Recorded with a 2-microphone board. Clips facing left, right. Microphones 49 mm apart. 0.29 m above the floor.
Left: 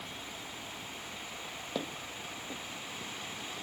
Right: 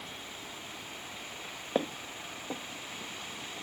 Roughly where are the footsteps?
Right.